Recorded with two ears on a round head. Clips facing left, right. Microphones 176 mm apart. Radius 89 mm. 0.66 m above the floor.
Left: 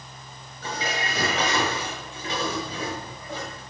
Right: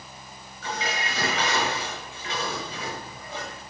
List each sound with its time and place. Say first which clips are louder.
0.6 s dishes clattering: left 1 dB; 35° left (ahead or behind), 6 m